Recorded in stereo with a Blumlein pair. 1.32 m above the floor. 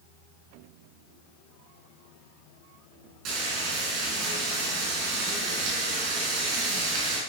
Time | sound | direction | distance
3.2 | frying | 40° right | 5 m